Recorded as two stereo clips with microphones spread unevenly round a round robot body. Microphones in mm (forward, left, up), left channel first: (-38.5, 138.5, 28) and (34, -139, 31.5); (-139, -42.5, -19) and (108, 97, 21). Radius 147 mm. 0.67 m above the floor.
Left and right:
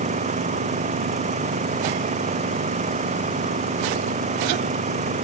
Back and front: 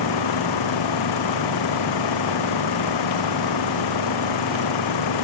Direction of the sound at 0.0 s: 145° right.